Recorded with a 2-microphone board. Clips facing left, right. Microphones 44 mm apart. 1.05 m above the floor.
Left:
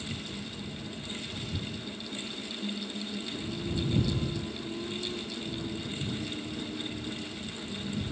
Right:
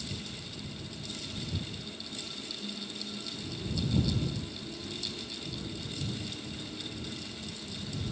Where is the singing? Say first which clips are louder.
Left 7 dB; 30° left (ahead or behind).